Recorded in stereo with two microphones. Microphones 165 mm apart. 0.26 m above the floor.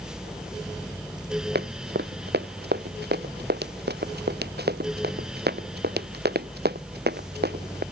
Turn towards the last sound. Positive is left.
turn(degrees=-80)